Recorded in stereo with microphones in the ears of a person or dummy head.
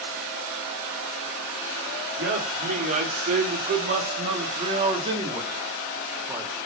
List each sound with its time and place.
2.2 s a man speaking: 50° right (ahead or behind), 5 m; by 6.5 s 10° right (ahead or behind), 4.5 m